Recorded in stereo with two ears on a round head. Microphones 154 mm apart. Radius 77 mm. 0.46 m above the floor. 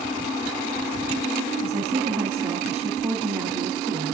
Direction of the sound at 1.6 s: 10° right (ahead or behind).